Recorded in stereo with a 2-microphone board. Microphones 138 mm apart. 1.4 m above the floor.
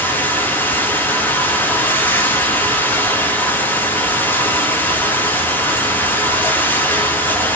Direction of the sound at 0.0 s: 15° left (ahead or behind).